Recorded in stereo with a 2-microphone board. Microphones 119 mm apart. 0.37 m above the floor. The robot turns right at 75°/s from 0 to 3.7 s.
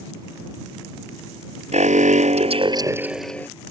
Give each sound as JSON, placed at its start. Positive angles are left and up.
{"t": 1.7, "sound": "an alarm", "azimuth_deg": -115}